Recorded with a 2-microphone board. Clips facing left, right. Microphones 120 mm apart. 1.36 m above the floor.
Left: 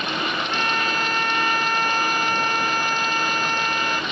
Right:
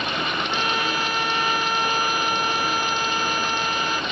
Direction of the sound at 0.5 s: 10° right (ahead or behind).